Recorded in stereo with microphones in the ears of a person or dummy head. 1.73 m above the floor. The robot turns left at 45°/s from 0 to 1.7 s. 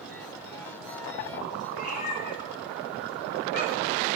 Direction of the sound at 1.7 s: 45° left (ahead or behind).